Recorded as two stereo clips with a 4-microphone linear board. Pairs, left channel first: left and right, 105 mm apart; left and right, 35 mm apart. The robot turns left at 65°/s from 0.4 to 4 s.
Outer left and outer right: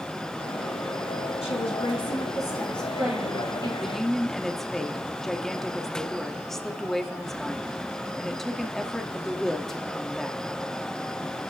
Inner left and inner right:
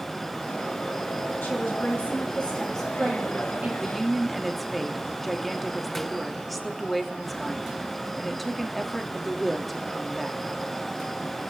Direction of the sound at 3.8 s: Centre (ahead or behind).